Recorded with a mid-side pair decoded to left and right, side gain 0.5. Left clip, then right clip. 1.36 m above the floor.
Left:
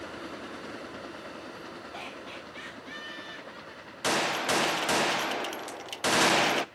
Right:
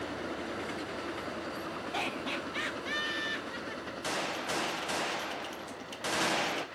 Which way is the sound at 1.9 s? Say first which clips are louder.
Right 8 dB; 50° right.